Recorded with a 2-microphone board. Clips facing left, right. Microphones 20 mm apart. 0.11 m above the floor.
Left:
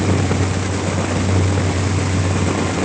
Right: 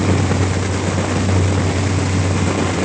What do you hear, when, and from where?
Only background noise.